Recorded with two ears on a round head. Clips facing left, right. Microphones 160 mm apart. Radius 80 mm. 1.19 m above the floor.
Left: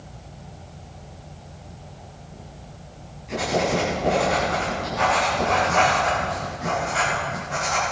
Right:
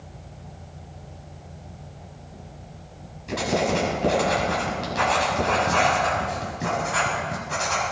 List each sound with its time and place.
3.3 s writing: 85° right, 6 m